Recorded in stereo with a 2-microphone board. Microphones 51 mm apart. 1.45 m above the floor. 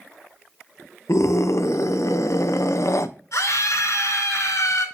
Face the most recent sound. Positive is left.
turn(degrees=75)  # may be behind; listen again after turning